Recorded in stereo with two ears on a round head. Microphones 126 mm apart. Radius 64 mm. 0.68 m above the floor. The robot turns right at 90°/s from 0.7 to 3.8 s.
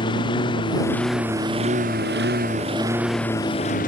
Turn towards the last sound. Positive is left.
turn(degrees=60)  # may be behind; listen again after turning